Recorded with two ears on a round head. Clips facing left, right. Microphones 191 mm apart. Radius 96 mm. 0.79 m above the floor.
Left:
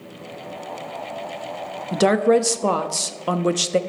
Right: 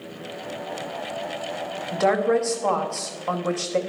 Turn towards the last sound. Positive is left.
turn(degrees=45)  # may be behind; listen again after turning